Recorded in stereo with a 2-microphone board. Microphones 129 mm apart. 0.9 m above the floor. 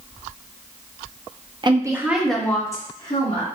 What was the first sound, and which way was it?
A woman speaking, 35° right (ahead or behind).